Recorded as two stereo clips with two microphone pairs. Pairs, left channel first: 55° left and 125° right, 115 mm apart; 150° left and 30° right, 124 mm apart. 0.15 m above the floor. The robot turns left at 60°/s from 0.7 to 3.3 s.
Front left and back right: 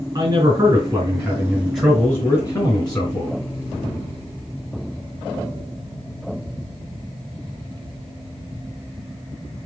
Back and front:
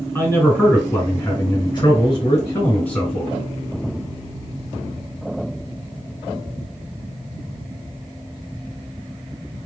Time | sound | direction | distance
0.1 | a man speaking | 150° right | 1.9 m